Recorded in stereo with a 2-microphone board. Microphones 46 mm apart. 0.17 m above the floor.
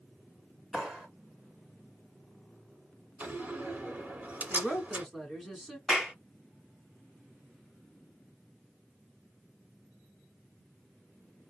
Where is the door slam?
35° right (ahead or behind), 1.3 m.